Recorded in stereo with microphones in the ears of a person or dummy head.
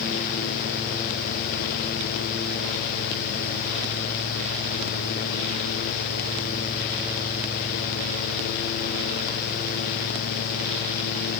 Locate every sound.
Only background noise.